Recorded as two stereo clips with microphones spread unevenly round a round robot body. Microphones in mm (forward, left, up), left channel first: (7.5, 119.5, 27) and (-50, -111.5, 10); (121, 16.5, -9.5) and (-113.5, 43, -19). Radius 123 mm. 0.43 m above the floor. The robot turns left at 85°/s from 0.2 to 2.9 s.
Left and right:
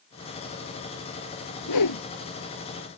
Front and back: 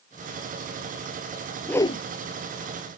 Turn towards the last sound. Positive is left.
turn(degrees=-25)